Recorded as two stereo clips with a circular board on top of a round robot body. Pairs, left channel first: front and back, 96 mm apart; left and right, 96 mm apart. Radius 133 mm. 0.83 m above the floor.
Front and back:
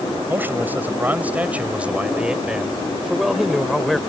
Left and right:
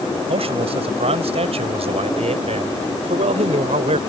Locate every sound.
0.3 s a man speaking: 110° right; by 4.0 s 90° right